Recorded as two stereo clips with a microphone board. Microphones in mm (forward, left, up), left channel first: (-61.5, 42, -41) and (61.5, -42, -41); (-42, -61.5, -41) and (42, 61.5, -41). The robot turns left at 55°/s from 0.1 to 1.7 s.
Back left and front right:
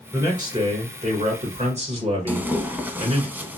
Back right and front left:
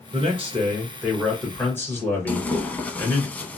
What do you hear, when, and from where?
0.1 s a man speaking: 35° left, 1.8 m; by 3.3 s 55° right, 1.8 m
2.3 s tearing paper: 75° right, 0.5 m